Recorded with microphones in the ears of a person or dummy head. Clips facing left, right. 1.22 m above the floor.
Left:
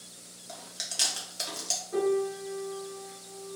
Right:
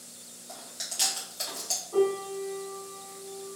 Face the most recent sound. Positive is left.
turn(degrees=20)  # may be behind; listen again after turning